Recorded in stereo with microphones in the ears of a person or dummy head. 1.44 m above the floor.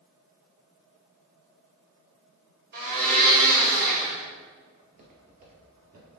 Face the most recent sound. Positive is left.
turn(degrees=-50)  # may be behind; listen again after turning